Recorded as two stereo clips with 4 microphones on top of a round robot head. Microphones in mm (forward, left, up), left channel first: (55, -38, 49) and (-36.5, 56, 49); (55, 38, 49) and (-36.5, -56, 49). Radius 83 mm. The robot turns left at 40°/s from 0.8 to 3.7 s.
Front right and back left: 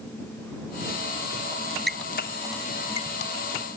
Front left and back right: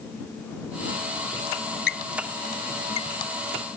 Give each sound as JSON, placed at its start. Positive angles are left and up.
{"t": 1.9, "sound": "a squeak", "azimuth_deg": 40}